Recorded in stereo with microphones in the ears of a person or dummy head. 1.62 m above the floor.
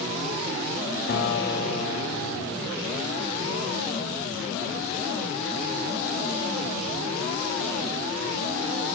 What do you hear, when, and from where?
1.1 s a guitar: 45° left (ahead or behind), 1.9 m